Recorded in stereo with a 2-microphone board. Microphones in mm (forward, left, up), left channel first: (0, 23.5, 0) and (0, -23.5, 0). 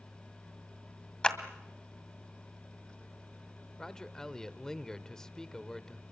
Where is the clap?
15° left (ahead or behind), 1.9 m.